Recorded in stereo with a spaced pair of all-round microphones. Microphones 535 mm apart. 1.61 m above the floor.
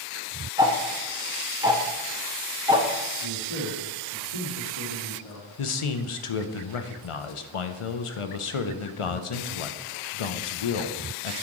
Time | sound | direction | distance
0.6 | ticking | 10° right (ahead or behind) | 0.6 m
3.2 | a man speaking | 85° left | 3.5 m
5.6 | a man speaking | 70° left (ahead or behind) | 0.6 m